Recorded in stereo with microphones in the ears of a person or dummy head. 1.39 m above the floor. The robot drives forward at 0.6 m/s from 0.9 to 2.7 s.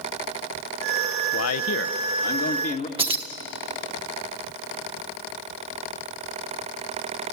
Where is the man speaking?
80° left, 0.7 m; by 2.9 s 45° left (ahead or behind), 1.1 m.